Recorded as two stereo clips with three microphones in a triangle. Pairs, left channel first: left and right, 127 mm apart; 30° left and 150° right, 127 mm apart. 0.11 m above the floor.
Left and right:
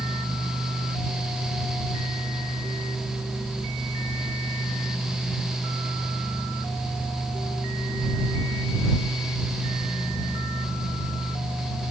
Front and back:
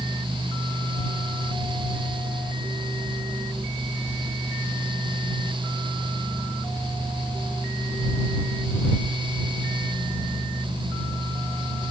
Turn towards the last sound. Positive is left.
No sound to turn to.